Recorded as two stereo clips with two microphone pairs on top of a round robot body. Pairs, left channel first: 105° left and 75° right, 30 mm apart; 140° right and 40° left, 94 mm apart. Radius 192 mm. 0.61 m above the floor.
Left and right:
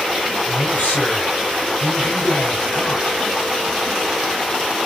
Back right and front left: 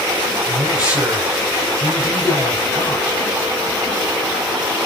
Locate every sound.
0.5 s a man speaking: 115° left, 7 m